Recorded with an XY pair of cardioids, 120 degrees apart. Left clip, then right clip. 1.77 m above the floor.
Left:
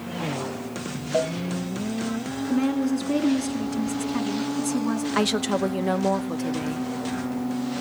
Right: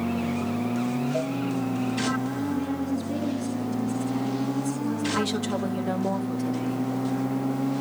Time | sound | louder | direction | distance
1.1 | a cowbell | left 8 dB | 45° left | 0.8 m
2.5 | a woman speaking | left 4 dB | 55° left | 4 m
5.1 | a woman speaking | left 4 dB | 35° left | 1.3 m